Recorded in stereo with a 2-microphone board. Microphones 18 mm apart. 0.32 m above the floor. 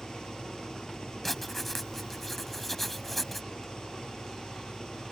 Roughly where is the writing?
Centre.